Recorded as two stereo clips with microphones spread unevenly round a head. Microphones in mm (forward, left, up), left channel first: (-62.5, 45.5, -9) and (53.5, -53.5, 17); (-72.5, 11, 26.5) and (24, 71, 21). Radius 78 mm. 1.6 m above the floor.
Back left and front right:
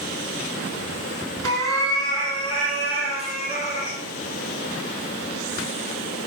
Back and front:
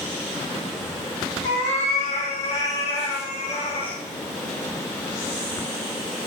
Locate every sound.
1.4 s a cat meowing: 150° right, 3.5 m; by 4.0 s 175° left, 3.5 m